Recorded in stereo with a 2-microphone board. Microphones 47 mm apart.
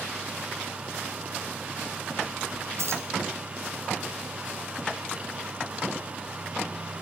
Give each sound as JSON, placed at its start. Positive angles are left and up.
{"t": 2.8, "sound": "keys jangling", "side_deg": -75, "distance_m": 3.5}